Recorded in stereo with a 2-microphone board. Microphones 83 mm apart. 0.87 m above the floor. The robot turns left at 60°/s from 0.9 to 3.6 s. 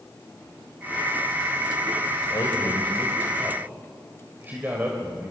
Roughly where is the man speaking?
Ahead left.